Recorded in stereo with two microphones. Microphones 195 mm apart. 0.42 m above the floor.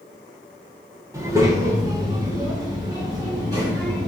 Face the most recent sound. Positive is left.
turn(degrees=-20)  # may be behind; listen again after turning